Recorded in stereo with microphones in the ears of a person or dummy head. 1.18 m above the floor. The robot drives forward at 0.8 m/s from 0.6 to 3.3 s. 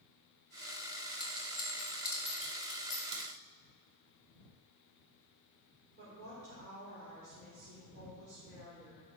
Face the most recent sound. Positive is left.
turn(degrees=-65)  # may be behind; listen again after turning